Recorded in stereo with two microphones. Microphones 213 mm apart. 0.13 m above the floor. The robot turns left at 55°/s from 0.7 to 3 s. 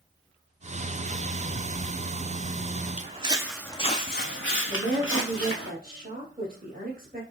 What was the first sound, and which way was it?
Footsteps, 35° right (ahead or behind).